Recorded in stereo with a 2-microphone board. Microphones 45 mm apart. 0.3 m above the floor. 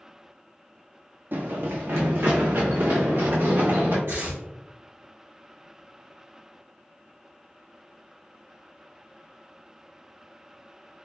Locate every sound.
1.3 s running footsteps: 55° right (ahead or behind), 0.5 m; by 4.0 s 75° right (ahead or behind), 1.9 m
4.1 s tearing paper: 75° right (ahead or behind), 1.7 m